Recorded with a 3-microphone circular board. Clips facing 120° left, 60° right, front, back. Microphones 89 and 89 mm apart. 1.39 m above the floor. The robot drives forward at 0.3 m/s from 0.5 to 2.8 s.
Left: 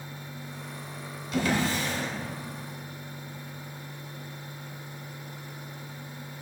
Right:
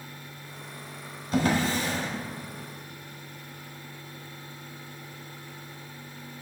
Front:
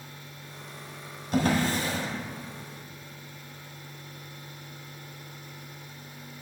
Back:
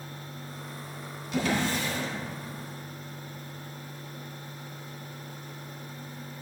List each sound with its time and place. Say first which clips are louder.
1.3 s a drawer: right 2 dB, front 3 dB; 25° right, 1.2 m; by 2.1 s 35° right, 1.0 m